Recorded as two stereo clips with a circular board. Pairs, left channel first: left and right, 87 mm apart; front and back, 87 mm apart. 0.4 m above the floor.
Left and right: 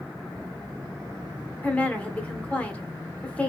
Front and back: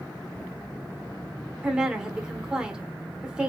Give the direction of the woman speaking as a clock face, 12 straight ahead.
8 o'clock.